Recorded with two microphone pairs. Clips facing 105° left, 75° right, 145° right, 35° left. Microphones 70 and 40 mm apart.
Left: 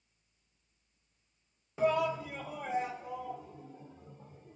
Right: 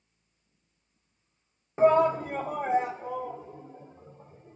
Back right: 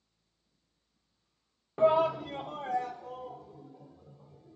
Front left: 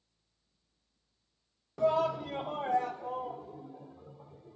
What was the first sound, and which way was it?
A shout, 115° right.